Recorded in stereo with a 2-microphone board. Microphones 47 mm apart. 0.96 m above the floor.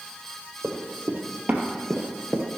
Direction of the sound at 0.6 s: 50° right (ahead or behind).